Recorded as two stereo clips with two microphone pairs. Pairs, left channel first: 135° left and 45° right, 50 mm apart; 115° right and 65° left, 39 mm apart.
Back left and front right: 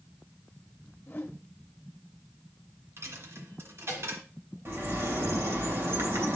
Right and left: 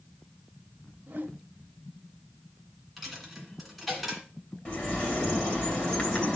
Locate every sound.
1.1 s a whoosh: 90° left, 0.8 m
3.0 s a dropped coin: 30° right, 2 m
4.7 s a bird: 60° right, 3 m